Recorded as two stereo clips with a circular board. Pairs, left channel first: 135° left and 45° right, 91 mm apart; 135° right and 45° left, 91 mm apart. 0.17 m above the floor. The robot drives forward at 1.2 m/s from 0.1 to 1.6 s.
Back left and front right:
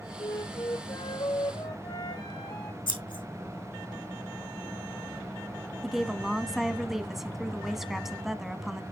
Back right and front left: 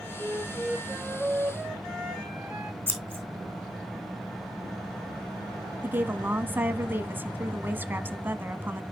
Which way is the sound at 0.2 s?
110° left.